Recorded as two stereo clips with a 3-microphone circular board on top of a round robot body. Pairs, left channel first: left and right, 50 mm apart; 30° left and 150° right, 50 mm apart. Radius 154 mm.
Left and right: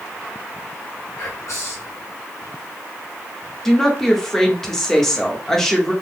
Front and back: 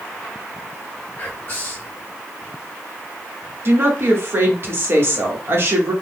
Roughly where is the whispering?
Left.